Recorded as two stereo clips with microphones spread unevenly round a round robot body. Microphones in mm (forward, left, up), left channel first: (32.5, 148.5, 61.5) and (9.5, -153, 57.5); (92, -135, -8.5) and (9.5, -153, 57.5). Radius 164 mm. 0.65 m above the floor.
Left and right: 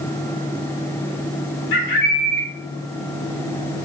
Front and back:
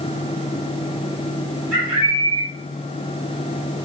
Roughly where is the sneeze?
I don't hear a sneeze.